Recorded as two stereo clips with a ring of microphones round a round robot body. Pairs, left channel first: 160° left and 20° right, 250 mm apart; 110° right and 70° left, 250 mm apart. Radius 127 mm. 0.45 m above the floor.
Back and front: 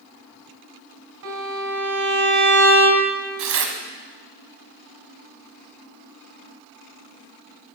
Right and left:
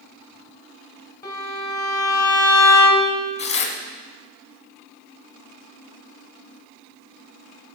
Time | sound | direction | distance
1.2 | a violin | 35° right | 2.5 m
3.4 | tearing paper | 45° right | 1.7 m